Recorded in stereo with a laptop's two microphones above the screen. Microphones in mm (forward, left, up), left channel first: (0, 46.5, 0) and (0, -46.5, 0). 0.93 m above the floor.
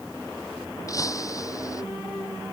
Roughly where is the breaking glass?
Left.